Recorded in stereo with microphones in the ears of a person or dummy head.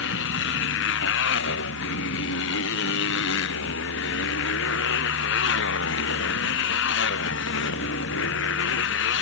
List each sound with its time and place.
0.0 s a motorcycle: 75° left (ahead or behind)